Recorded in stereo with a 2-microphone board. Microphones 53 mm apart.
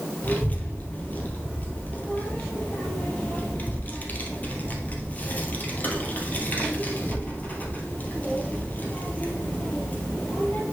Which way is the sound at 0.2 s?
35° left (ahead or behind).